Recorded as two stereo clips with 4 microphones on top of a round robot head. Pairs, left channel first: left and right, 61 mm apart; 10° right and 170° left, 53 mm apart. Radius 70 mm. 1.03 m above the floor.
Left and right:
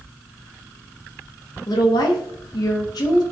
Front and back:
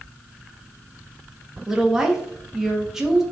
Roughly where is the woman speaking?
Left.